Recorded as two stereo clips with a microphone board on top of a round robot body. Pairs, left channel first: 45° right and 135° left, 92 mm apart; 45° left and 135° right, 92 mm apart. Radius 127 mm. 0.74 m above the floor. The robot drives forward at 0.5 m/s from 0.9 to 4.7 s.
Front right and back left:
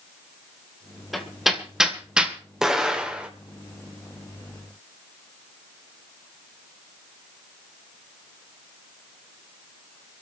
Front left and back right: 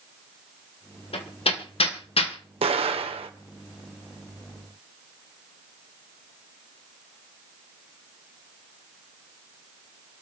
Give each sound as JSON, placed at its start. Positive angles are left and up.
{"t": 1.1, "sound": "hammering", "azimuth_deg": 45, "distance_m": 2.5}
{"t": 2.6, "sound": "an explosion", "azimuth_deg": -140, "distance_m": 1.7}